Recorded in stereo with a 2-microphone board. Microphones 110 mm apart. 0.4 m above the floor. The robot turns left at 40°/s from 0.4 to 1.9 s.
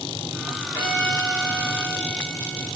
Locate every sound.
0.7 s a violin: 160° right, 1.9 m; by 2.7 s 155° left, 1.9 m